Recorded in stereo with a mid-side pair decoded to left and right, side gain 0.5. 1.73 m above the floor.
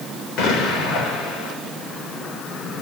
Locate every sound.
0.4 s an explosion: 65° left, 7.5 m